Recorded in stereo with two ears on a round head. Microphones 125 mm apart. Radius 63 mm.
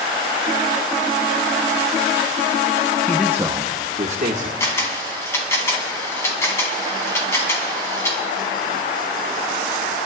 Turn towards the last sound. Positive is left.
turn(degrees=20)  # may be behind; listen again after turning